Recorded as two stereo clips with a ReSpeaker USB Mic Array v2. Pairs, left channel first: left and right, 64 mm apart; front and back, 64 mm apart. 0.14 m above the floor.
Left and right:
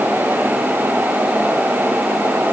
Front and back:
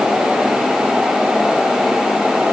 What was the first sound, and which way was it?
Only background noise.